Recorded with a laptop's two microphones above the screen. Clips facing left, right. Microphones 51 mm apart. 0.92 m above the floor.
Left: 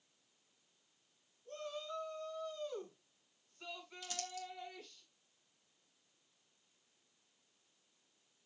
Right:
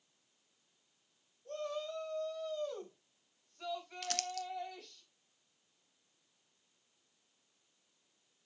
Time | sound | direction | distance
1.4 | a shout | 70° right (ahead or behind) | 5 m
4.0 | crumpling | 65° right (ahead or behind) | 0.7 m